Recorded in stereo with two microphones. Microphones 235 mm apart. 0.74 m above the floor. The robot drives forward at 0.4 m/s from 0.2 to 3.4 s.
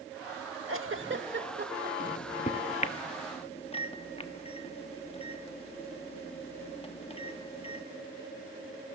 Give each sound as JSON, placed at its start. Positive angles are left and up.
{"t": 0.7, "sound": "a giggle", "side_deg": -65, "distance_m": 0.9}
{"t": 2.0, "sound": "a microwave", "side_deg": 35, "distance_m": 0.8}